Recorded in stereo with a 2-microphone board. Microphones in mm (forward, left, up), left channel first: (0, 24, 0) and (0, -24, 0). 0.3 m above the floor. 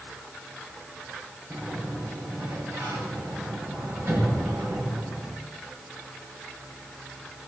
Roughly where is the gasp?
I don't hear a gasp.